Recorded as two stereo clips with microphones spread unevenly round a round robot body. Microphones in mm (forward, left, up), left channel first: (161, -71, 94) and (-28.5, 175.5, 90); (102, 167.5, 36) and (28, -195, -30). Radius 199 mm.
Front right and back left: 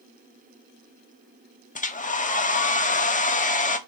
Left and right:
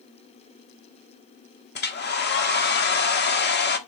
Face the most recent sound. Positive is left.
turn(degrees=10)